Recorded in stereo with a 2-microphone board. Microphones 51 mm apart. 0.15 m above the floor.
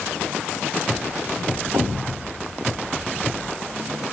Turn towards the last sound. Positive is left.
turn(degrees=-85)